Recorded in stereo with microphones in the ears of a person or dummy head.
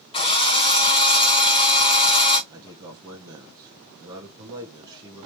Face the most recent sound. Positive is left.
turn(degrees=-20)  # may be behind; listen again after turning